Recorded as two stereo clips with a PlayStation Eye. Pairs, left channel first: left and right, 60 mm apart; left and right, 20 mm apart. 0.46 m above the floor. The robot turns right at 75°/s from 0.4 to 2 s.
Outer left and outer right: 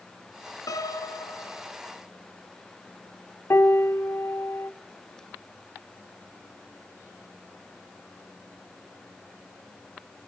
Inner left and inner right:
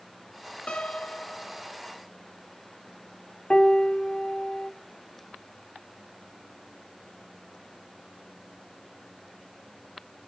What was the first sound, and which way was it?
A piano, 80° left.